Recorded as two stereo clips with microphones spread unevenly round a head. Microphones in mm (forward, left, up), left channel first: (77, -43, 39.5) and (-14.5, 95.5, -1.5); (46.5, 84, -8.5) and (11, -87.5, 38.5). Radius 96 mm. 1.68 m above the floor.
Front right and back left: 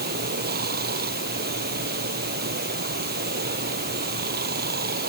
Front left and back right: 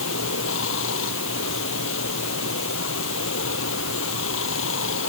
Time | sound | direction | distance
0.0 | running water | 95° left | ?